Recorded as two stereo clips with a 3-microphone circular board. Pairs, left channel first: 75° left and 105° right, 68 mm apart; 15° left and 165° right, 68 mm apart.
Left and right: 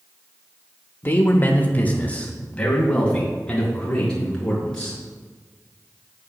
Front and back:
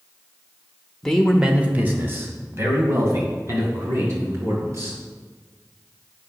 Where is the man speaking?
85° left, 0.8 m; by 5.0 s 155° left, 5 m.